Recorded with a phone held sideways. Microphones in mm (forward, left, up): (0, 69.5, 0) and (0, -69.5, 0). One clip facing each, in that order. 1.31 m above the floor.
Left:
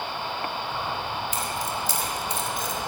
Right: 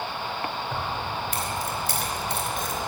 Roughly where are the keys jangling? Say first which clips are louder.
Even; right.